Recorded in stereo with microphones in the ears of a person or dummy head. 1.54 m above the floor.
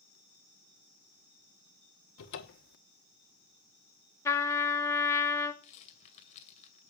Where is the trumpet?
15° left (ahead or behind), 1.4 m.